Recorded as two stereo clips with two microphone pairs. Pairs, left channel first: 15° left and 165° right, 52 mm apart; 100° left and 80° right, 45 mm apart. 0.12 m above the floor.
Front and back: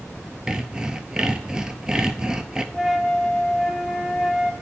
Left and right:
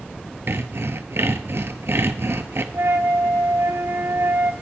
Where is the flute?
75° right, 0.5 m.